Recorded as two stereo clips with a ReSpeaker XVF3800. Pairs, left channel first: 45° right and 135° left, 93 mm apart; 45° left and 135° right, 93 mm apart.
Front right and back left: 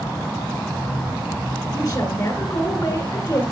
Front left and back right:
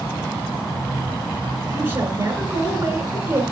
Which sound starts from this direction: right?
A woman speaking, at 1.7 s.